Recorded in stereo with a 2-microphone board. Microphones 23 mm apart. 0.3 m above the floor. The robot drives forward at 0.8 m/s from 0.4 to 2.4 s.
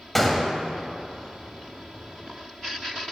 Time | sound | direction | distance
0.1 | a gunshot | 10° left (ahead or behind) | 0.6 m